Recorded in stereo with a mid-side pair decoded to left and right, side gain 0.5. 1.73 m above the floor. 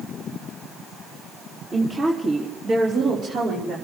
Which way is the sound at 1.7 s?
25° right.